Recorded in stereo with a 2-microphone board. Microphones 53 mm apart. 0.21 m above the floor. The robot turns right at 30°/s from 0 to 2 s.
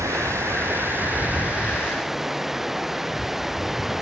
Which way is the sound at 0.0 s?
65° right.